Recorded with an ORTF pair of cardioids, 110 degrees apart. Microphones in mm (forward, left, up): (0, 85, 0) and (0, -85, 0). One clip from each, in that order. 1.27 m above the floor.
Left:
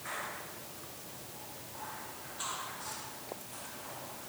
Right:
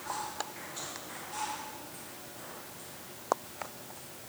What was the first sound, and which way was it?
Only background noise.